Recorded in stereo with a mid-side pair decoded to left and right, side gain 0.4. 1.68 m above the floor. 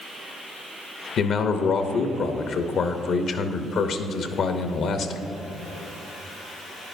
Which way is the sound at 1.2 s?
70° left.